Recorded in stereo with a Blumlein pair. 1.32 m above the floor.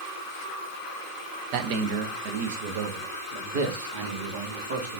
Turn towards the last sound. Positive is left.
turn(degrees=-60)